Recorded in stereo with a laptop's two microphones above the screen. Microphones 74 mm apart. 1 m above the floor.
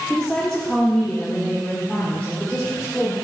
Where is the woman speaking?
10° left (ahead or behind), 2.5 m; by 3.1 s 15° left (ahead or behind), 4 m.